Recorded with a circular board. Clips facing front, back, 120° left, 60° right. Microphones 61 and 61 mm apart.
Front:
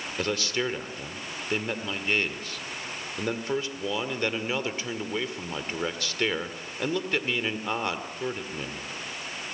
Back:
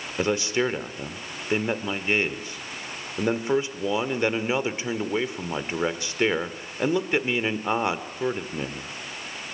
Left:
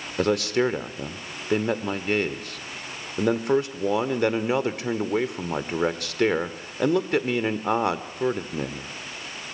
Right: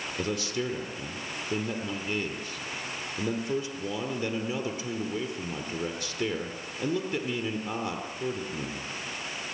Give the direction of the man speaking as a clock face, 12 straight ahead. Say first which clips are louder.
Back 5 dB, left 10 dB; 8 o'clock.